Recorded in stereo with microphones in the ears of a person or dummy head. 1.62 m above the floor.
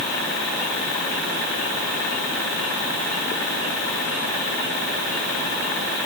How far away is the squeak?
No squeak in this recording.